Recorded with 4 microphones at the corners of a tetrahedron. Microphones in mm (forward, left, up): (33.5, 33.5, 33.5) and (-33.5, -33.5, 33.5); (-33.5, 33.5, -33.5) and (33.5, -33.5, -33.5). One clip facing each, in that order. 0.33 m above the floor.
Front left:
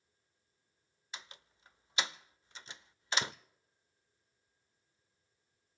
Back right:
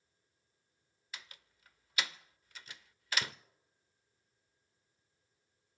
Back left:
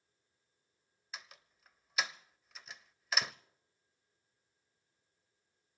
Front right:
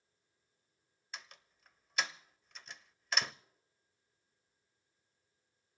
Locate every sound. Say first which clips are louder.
1.1 s a door slam: front left 2 dB, even; 50° left, 0.5 m